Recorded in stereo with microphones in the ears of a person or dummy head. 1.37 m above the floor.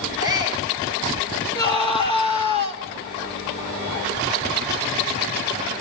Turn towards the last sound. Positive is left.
turn(degrees=25)  # may be behind; listen again after turning